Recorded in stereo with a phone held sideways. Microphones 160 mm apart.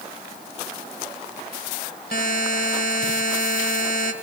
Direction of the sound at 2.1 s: 70° left (ahead or behind).